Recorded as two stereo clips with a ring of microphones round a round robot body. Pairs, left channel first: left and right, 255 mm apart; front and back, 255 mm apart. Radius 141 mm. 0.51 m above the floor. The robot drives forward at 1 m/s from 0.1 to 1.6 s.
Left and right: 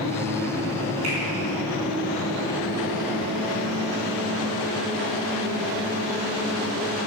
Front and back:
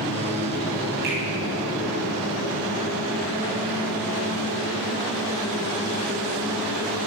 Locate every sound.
1.0 s a finger snap: 125° right, 3 m